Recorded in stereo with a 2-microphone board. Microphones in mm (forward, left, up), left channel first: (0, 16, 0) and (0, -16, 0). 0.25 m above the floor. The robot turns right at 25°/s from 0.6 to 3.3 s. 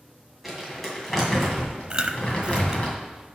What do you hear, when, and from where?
0.4 s crumpling: straight ahead, 2.5 m; by 2.9 s 55° left, 2.5 m
1.9 s chewing: 30° right (ahead or behind), 0.6 m; by 2.8 s 25° right (ahead or behind), 0.6 m